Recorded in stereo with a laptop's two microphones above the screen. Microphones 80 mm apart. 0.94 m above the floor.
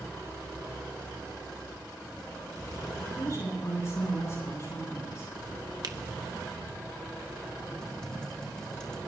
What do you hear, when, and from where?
3.2 s a woman speaking: 35° left (ahead or behind), 9 m
5.8 s a finger snap: 55° right (ahead or behind), 0.9 m
7.8 s typing on a keyboard: 10° left (ahead or behind), 2.5 m